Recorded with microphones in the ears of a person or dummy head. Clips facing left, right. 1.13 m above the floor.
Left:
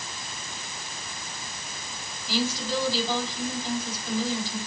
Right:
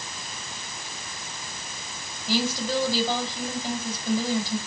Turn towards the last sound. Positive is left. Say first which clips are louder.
# right 2 dB
turn(degrees=-45)  # may be behind; listen again after turning